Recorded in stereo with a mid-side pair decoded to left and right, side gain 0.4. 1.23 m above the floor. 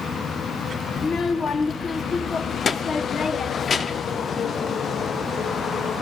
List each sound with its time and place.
1.0 s a child speaking: 50° left, 0.7 m